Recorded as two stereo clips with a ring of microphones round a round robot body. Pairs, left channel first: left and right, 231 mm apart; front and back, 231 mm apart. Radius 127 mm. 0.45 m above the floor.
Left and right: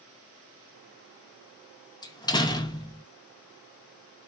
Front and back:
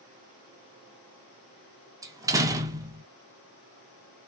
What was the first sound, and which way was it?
A door slam, 130° left.